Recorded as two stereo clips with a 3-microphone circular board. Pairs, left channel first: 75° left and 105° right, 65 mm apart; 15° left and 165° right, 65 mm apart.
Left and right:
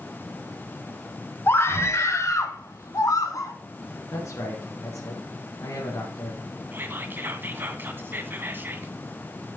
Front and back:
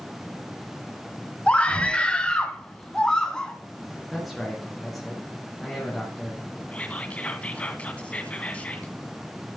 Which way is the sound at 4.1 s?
105° left.